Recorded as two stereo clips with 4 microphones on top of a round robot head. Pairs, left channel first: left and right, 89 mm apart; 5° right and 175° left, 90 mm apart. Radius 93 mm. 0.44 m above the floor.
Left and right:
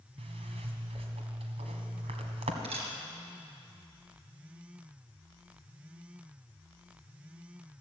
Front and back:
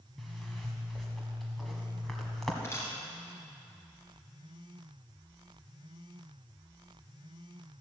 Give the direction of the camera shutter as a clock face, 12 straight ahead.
2 o'clock.